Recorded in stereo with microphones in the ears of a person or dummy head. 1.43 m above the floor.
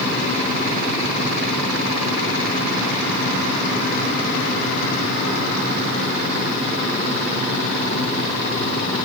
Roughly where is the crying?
No crying in this recording.